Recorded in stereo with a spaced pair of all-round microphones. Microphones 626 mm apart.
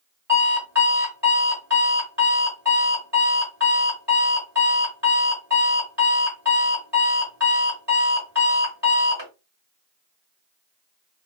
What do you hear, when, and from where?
0.3 s an alarm clock: 40° right (ahead or behind), 1.5 m